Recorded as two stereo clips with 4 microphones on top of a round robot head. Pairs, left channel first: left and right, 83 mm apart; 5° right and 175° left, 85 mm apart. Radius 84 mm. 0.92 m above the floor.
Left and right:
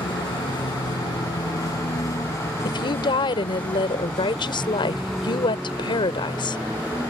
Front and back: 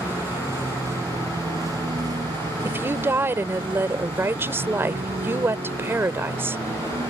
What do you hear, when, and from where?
0.0 s a vehicle: 110° left; by 7.1 s 160° right
2.6 s a woman speaking: 110° left